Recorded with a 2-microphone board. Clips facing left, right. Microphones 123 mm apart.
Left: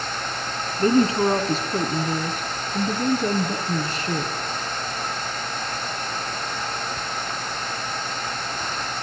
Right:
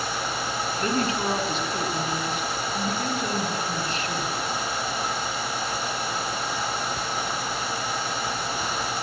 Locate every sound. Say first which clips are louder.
0.8 s a woman speaking: left 9 dB; 35° left (ahead or behind), 2.5 m